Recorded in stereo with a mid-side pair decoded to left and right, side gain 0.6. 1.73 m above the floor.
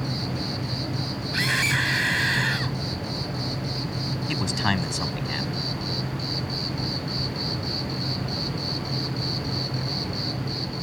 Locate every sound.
0.0 s an insect: 5° right
1.3 s a scream: 5° right
4.3 s a man speaking: 15° left